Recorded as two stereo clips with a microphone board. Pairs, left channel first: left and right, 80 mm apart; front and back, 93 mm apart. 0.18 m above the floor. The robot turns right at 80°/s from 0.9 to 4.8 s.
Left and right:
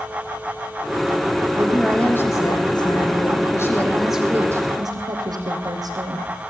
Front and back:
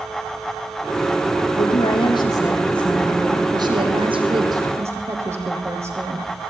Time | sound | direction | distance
1.6 | a woman speaking | 20° right | 6 m